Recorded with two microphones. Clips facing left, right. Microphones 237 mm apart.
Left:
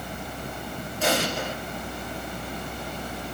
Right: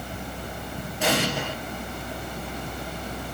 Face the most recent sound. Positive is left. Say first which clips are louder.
# right 1 dB
turn(degrees=-70)  # may be behind; listen again after turning